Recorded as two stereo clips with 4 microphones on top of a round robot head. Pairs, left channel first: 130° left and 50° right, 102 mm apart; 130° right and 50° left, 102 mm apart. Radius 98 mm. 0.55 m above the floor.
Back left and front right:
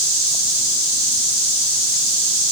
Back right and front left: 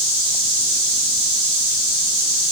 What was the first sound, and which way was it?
Only background noise.